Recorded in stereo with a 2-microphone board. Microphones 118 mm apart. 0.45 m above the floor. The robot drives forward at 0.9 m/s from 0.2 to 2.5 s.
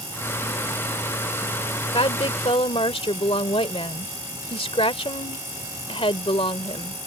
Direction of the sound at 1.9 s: 50° left (ahead or behind).